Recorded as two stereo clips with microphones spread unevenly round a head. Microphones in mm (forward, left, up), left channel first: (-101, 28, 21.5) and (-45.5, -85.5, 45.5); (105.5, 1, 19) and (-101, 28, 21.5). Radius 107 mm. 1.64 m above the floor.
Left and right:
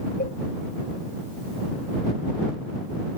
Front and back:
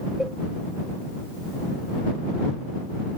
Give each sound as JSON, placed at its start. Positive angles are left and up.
{"t": 0.2, "sound": "a cowbell", "azimuth_deg": 85}